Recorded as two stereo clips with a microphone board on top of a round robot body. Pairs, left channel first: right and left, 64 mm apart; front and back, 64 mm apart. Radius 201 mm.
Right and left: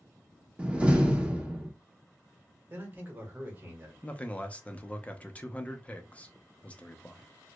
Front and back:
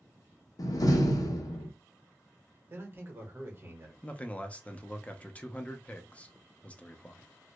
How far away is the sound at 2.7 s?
About 1.3 m.